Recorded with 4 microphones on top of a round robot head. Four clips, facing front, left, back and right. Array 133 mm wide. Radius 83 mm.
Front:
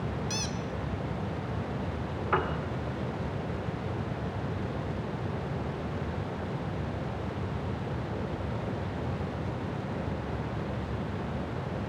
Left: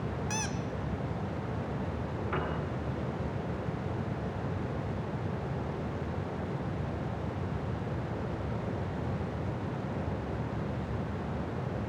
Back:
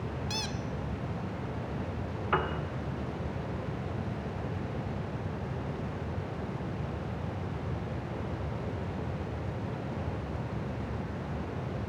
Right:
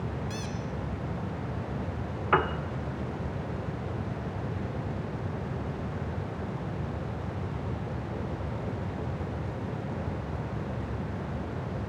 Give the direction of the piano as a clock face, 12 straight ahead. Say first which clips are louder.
Right 10 dB, front 1 dB; 3 o'clock.